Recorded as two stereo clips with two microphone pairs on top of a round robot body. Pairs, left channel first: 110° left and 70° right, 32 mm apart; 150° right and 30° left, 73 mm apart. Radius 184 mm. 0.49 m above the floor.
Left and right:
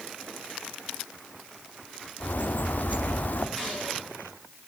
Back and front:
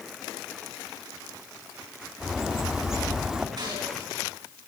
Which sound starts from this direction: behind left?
A bird, at 2.2 s.